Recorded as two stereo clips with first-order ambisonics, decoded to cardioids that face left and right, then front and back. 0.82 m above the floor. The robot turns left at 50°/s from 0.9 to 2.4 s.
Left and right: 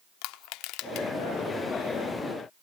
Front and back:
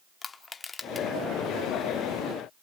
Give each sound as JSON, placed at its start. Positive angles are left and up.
{"t": 0.2, "sound": "crushing", "azimuth_deg": 70, "distance_m": 0.8}